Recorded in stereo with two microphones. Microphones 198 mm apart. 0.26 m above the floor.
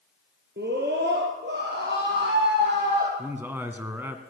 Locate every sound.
0.6 s a scream: 60° right (ahead or behind), 4 m; by 3.1 s 70° right (ahead or behind), 7.5 m
3.2 s a man speaking: 10° right (ahead or behind), 2.5 m